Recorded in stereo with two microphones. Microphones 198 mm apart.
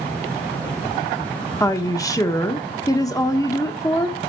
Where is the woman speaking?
15° left (ahead or behind), 0.9 m.